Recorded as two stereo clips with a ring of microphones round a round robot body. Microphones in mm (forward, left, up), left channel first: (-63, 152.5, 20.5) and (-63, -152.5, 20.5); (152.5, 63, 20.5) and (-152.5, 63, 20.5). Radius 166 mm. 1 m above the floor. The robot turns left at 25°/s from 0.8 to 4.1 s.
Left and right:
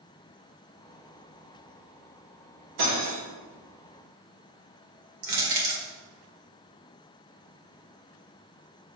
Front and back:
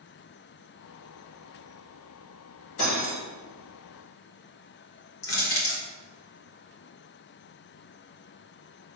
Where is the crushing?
50° right, 2 m.